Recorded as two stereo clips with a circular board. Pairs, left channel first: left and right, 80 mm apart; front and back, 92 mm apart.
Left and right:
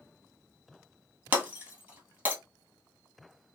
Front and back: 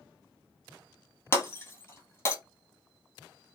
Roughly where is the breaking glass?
Ahead right.